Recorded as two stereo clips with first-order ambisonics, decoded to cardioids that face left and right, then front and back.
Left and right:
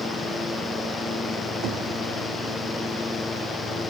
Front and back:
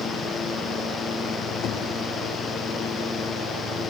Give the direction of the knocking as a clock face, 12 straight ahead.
2 o'clock.